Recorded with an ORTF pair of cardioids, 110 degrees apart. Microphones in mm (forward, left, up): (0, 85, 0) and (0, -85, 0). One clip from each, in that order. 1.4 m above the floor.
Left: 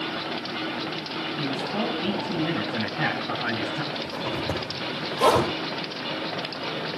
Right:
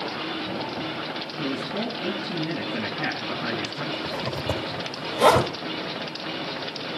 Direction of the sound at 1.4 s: 50° left.